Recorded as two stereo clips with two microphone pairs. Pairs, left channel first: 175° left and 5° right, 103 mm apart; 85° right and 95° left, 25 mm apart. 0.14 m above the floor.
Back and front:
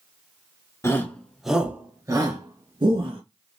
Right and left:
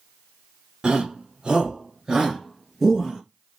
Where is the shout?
125° left, 1.6 m; by 3.2 s 20° left, 3 m.